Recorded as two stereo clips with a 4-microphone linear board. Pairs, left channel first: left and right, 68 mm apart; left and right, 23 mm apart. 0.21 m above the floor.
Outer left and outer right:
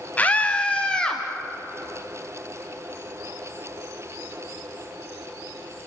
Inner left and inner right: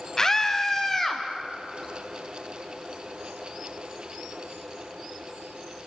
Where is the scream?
25° left (ahead or behind), 1.4 m; by 1.2 s 15° left (ahead or behind), 1.8 m.